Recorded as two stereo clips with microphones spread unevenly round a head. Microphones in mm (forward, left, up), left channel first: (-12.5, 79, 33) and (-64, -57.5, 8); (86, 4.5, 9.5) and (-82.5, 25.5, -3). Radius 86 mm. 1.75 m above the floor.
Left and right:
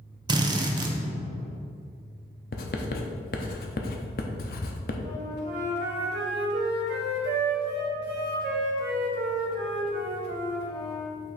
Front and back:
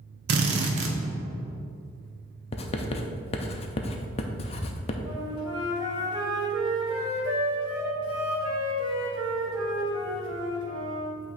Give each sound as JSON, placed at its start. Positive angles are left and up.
{"t": 0.3, "sound": "a drill", "azimuth_deg": -175, "distance_m": 0.8}
{"t": 2.5, "sound": "writing", "azimuth_deg": 45, "distance_m": 0.5}
{"t": 5.0, "sound": "a flute", "azimuth_deg": -120, "distance_m": 1.3}